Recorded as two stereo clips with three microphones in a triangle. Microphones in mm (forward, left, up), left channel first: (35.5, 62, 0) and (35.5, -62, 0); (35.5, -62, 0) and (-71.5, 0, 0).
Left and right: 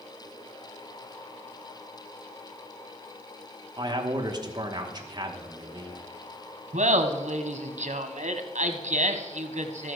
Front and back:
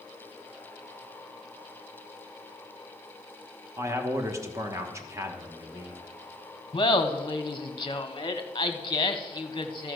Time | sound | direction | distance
3.8 | a man speaking | 145° right | 1.2 m
6.7 | laughter | 85° right | 0.9 m